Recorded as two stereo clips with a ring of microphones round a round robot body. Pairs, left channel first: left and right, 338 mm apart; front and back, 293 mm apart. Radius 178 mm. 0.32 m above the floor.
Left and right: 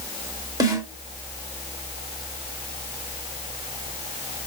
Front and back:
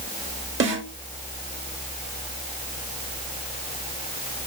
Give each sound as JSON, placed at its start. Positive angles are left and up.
{"t": 0.6, "sound": "a snare drum", "azimuth_deg": -165, "distance_m": 1.6}